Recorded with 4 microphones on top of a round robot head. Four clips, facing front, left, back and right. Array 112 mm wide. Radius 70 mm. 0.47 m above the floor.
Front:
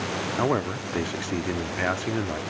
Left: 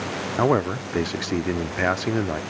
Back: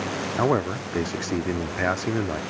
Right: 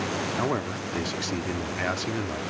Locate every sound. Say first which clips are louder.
0.4 s a man speaking: left 12 dB, back 3 dB; 105° left